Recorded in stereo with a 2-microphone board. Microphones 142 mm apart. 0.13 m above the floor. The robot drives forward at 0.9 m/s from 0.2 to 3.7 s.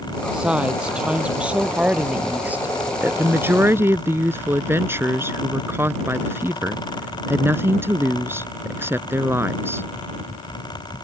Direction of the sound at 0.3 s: 5° right (ahead or behind).